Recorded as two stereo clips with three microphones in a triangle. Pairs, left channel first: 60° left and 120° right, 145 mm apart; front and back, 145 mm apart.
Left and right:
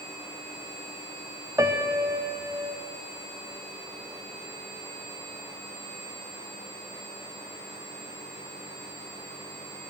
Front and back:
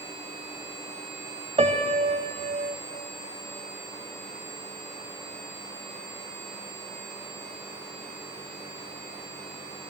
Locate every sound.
1.6 s a piano: straight behind, 0.8 m